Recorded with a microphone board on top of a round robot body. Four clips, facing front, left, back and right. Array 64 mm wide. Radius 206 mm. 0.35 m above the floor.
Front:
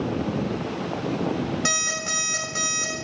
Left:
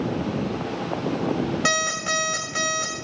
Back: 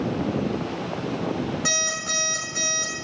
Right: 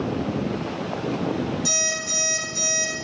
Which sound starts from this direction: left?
An alarm clock, at 1.6 s.